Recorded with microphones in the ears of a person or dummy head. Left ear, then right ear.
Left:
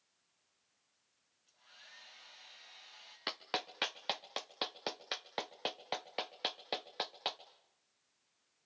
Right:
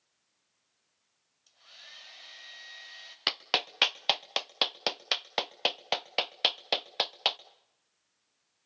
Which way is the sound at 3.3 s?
25° right (ahead or behind).